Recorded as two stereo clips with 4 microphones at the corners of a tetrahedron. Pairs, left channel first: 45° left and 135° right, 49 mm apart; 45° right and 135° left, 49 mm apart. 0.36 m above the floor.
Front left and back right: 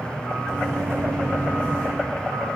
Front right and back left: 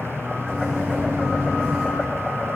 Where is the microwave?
145° right, 3 m.